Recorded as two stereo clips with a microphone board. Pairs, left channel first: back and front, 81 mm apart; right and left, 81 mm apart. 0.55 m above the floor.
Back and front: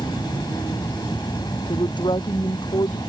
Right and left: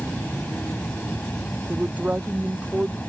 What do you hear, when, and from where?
0.0 s an insect: 160° right
1.7 s a woman speaking: 160° left